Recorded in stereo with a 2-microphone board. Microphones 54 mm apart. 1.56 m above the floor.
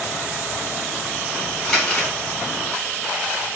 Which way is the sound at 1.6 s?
15° left (ahead or behind).